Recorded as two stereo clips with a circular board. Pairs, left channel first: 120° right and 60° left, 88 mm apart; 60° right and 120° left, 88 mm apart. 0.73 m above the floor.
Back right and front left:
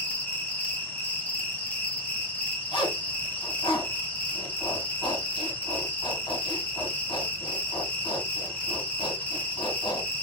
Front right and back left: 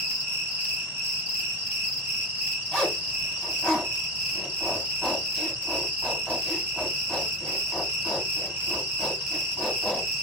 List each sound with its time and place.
0.0 s an insect: 175° left, 1.0 m
2.7 s a zipper: 150° right, 2.5 m